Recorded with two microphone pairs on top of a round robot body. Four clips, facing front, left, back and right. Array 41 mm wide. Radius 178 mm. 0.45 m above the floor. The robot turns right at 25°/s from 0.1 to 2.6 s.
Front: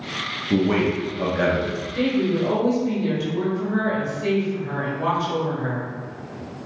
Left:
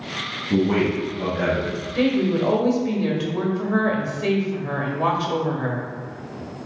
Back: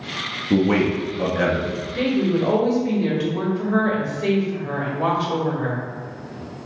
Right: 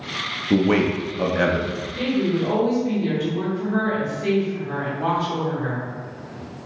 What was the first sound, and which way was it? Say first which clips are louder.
A man speaking: right 1 dB, back 2 dB; 110° right.